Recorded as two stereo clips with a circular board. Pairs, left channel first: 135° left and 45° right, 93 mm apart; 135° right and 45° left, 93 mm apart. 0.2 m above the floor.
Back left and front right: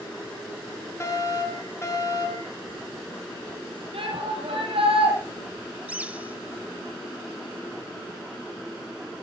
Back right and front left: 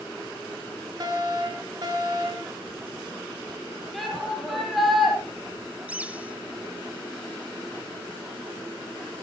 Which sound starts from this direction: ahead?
A bird, at 5.9 s.